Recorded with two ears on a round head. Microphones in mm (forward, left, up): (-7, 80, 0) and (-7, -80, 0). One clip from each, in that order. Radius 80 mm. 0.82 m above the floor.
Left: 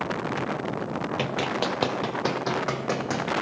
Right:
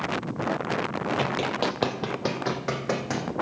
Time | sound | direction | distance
1.2 | running footsteps | 15° left (ahead or behind) | 1.0 m